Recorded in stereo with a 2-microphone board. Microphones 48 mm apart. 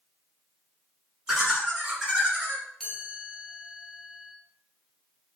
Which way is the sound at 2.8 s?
10° left (ahead or behind).